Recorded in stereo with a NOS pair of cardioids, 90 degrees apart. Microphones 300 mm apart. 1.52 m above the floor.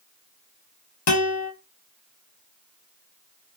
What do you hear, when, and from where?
1.1 s a guitar: 55° left, 1.5 m